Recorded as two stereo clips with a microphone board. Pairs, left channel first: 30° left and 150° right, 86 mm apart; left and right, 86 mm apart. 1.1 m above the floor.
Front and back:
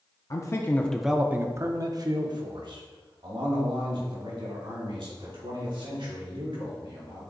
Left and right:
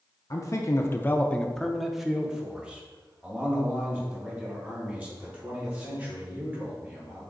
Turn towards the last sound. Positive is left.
turn(degrees=-155)